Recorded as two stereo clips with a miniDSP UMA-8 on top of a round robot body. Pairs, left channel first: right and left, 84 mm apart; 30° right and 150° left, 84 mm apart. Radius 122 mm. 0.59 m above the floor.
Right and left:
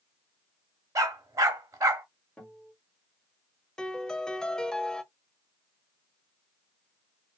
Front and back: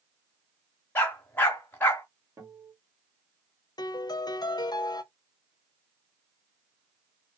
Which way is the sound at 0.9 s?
35° left.